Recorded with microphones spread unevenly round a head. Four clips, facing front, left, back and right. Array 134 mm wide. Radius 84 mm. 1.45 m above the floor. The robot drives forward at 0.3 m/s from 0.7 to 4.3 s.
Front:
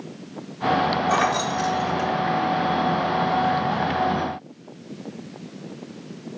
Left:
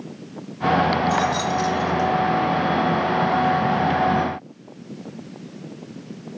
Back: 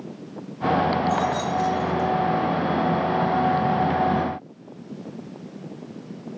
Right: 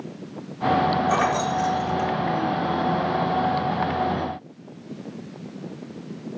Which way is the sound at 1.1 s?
10° left.